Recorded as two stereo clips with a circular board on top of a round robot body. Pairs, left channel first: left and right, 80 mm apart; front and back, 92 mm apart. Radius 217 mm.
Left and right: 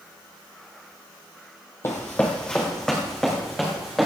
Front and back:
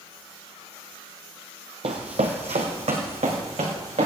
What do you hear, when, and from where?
1.8 s running footsteps: 150° left, 0.9 m; by 4.1 s straight behind, 3 m